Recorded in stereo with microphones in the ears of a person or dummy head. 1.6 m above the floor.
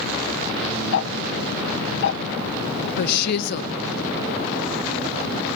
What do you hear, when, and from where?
0.9 s ticking: 60° left (ahead or behind), 0.9 m
3.0 s a woman speaking: 55° left (ahead or behind), 1.2 m